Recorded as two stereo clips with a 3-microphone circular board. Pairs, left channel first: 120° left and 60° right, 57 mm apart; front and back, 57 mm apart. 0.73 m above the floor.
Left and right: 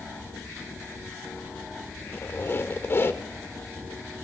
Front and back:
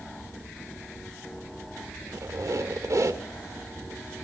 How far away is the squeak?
About 1.5 m.